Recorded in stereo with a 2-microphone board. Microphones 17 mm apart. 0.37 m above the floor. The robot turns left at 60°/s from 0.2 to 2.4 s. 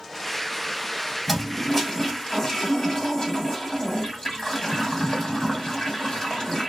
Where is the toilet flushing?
165° left, 1.7 m; by 6.7 s 95° left, 1.7 m.